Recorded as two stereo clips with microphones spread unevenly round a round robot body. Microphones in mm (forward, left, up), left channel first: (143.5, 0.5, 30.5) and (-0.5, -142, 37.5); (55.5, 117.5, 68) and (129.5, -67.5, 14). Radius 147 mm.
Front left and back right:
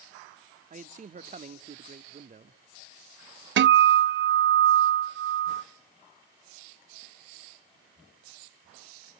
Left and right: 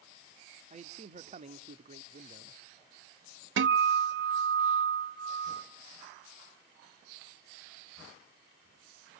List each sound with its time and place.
0.7 s a man speaking: 90° right, 0.9 m
3.6 s a guitar: 100° right, 0.6 m